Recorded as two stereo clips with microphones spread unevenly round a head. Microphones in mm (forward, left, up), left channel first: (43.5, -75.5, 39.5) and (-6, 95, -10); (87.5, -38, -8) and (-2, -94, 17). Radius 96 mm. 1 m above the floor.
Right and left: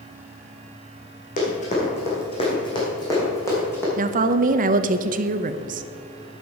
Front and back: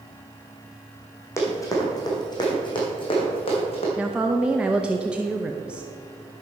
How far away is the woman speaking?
About 0.7 m.